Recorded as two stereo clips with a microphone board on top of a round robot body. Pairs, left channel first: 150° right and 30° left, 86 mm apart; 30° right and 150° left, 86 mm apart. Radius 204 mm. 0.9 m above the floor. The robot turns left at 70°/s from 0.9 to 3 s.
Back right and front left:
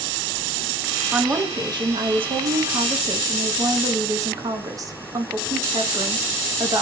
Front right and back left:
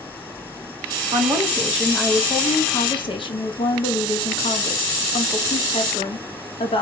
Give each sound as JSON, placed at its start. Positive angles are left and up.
{"t": 1.1, "sound": "a woman speaking", "azimuth_deg": 115, "distance_m": 1.3}